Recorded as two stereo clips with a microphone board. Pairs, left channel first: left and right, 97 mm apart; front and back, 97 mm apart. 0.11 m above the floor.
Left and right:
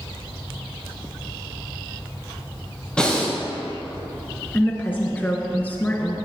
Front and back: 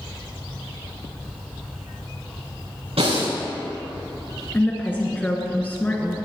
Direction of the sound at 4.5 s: 45° left.